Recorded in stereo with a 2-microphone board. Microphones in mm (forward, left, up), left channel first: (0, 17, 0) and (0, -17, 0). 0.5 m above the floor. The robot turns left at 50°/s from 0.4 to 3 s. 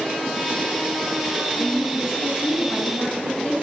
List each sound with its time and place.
1.6 s a woman speaking: 95° left, 4 m; by 3.5 s 25° left, 4 m